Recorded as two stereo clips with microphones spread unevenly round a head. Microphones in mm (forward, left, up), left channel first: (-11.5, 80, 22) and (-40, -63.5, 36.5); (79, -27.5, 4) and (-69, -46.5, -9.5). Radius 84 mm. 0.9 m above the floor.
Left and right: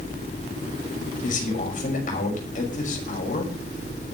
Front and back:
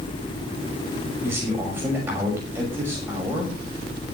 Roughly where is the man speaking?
Left.